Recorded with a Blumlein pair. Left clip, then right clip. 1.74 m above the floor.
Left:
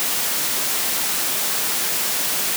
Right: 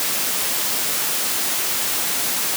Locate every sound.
Only background noise.